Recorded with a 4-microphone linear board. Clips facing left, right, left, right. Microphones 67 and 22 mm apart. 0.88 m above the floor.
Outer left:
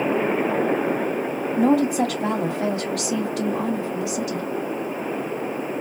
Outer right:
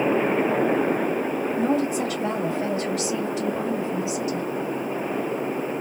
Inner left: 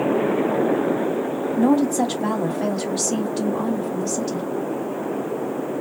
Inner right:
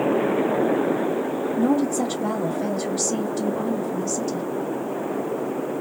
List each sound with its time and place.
1.6 s a woman speaking: 75° left (ahead or behind), 1.1 m